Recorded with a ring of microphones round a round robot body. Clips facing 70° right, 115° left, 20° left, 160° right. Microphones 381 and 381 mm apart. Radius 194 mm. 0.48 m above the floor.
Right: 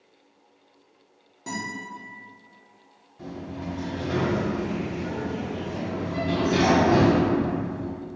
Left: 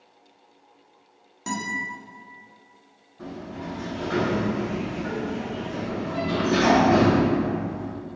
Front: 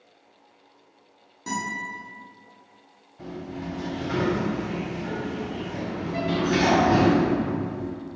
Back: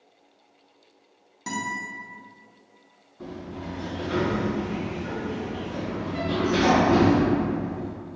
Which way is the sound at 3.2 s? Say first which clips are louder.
Even, front 2 dB; straight ahead.